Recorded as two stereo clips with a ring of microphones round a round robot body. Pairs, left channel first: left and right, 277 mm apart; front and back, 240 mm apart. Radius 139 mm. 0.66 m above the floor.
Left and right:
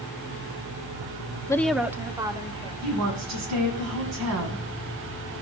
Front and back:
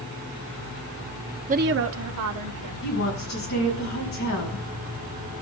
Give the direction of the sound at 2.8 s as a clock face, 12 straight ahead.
2 o'clock.